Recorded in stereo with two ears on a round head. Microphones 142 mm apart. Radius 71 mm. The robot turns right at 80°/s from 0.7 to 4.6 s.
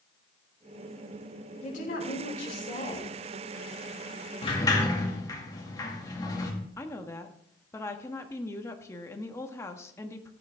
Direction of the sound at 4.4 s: 35° left (ahead or behind).